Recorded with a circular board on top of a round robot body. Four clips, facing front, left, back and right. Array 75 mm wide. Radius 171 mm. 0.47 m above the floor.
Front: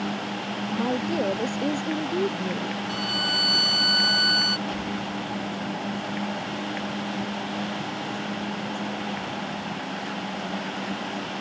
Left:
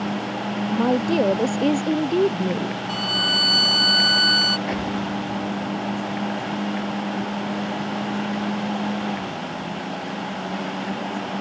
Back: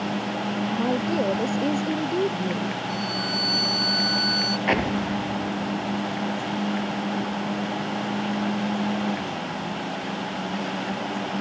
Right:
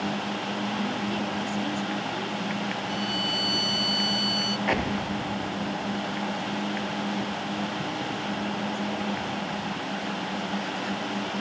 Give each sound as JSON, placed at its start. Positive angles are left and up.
{"t": 0.7, "sound": "a woman speaking", "azimuth_deg": 90}
{"t": 2.9, "sound": "a violin", "azimuth_deg": 70}
{"t": 4.7, "sound": "an explosion", "azimuth_deg": -160}